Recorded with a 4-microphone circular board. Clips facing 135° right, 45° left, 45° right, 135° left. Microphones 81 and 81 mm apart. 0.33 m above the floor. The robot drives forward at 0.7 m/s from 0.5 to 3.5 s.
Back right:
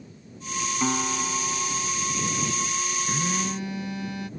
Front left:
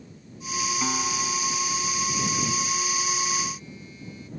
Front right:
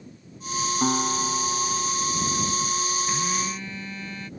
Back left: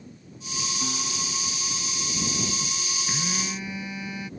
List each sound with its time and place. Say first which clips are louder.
0.8 s a guitar: back right 2 dB, front right 12 dB; 60° right; by 1.9 s 80° right
3.1 s a phone buzzing: back right 1 dB, front right 4 dB; 145° right